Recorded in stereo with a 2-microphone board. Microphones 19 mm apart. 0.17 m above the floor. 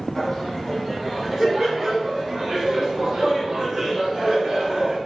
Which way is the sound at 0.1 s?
5° right (ahead or behind).